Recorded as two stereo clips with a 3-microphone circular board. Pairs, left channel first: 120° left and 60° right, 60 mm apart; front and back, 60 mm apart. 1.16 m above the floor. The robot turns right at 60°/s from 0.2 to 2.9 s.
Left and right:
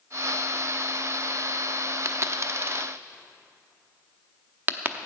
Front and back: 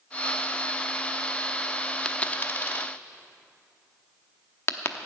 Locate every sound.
2.0 s a dropped coin: 70° right, 0.8 m; by 5.0 s 15° right, 0.8 m